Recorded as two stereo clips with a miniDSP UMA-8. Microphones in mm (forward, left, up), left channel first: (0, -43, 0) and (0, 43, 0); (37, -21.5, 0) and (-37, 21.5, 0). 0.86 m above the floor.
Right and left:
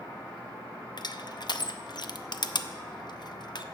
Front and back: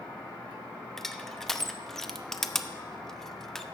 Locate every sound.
1.0 s crushing: 115° right, 0.5 m